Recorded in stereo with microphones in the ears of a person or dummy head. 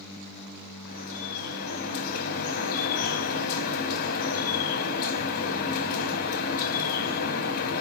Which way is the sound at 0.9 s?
55° left (ahead or behind).